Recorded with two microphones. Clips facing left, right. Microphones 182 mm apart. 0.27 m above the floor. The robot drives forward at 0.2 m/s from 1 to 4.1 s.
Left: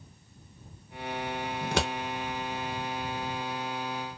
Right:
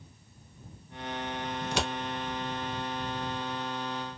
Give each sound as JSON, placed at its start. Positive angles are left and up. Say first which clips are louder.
{"t": 1.6, "sound": "scissors", "louder": "left 3 dB", "side_deg": 60, "distance_m": 0.7}